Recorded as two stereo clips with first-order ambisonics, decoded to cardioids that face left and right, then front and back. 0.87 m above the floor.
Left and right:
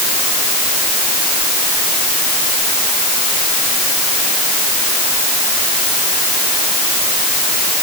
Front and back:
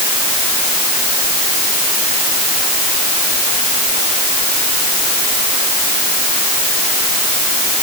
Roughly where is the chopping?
No chopping in this recording.